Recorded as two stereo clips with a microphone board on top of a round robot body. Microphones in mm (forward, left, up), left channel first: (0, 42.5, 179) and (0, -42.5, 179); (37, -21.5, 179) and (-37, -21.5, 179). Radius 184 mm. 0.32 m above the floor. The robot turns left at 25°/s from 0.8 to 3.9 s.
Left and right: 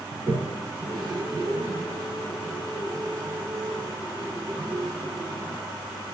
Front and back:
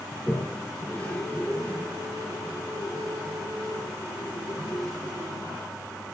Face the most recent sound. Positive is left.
turn(degrees=-145)